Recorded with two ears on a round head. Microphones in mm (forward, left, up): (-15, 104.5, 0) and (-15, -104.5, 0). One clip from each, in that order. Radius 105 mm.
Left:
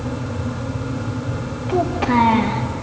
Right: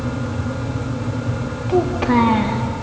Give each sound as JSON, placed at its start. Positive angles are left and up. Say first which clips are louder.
{"t": 1.7, "sound": "a child speaking", "louder": "right 1 dB", "side_deg": 0, "distance_m": 1.2}